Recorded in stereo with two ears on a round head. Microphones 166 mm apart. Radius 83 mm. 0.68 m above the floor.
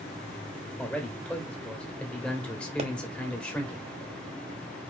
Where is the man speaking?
5° left (ahead or behind), 1.6 m.